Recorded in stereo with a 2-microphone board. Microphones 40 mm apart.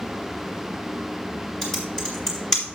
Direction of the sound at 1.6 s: 10° left (ahead or behind).